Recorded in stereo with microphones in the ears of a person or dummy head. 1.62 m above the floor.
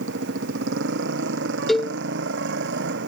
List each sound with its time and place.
0.0 s a motorcycle: 65° right (ahead or behind)
1.7 s a cowbell: centre (ahead or behind)